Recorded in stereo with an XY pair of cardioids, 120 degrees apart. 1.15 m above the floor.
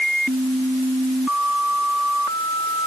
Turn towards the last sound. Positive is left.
No sound to turn to.